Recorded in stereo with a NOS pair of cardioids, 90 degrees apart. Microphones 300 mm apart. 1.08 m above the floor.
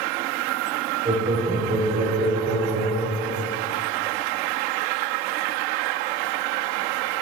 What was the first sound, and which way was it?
Laughter, 20° right.